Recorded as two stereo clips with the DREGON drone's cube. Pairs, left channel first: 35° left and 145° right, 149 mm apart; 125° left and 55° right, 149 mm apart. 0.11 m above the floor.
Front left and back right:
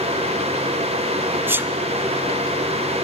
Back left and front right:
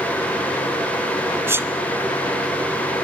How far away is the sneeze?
About 1.1 m.